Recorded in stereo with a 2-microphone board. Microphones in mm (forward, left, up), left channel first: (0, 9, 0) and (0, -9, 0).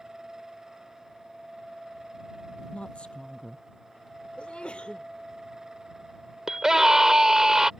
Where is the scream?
30° right (ahead or behind).